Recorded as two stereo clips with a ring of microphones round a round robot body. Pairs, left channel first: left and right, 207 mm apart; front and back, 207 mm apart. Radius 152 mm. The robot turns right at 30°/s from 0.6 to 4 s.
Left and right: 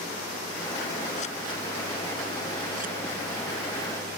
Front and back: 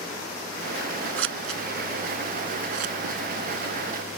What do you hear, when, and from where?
1.2 s scissors: 155° left; by 4.2 s 120° right